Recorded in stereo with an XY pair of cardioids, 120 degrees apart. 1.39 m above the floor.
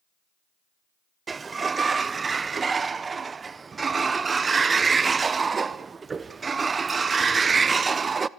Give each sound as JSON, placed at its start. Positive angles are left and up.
{"t": 1.3, "sound": "a sliding door", "azimuth_deg": -30, "distance_m": 0.5}